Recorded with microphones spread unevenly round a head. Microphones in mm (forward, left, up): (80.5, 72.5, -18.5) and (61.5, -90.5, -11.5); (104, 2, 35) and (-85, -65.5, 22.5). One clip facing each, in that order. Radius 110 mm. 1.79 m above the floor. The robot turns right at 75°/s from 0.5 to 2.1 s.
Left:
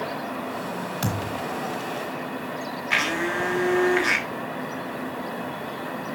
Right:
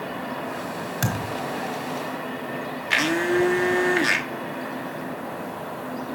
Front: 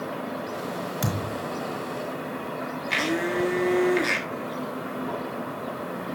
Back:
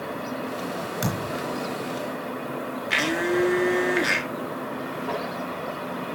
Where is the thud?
70° right, 3.5 m; by 1.4 s 40° right, 3.5 m.